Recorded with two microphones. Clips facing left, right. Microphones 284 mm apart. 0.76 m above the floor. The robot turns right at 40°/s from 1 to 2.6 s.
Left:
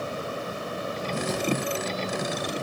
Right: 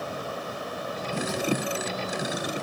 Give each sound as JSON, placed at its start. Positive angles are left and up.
{"t": 1.3, "sound": "a thud", "side_deg": 40, "distance_m": 7.5}